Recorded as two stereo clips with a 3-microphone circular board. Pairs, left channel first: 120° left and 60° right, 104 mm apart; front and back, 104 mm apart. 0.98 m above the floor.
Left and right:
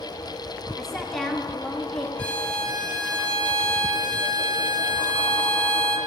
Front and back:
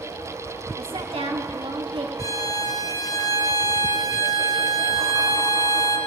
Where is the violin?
45° left, 1.2 m.